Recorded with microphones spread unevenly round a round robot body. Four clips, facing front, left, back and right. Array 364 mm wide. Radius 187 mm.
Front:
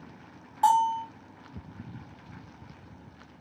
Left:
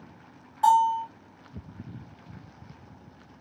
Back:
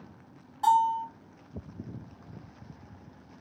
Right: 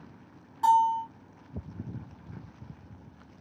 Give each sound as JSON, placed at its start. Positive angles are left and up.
{"t": 0.6, "sound": "a bell", "azimuth_deg": -40, "distance_m": 0.8}